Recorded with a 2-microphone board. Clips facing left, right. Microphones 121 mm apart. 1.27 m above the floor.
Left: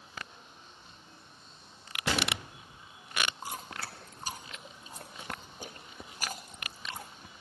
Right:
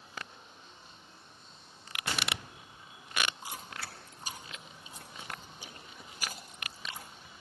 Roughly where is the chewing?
Left.